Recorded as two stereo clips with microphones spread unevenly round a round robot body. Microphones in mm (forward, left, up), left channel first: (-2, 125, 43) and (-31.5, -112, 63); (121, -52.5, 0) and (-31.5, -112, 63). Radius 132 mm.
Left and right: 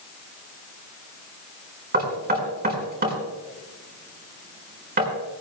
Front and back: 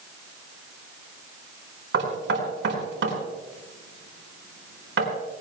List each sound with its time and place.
1.9 s knocking: 150° right, 4.5 m